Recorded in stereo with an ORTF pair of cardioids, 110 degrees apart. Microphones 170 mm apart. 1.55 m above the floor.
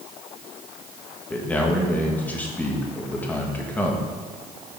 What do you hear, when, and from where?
1.3 s a man speaking: 10° left, 1.7 m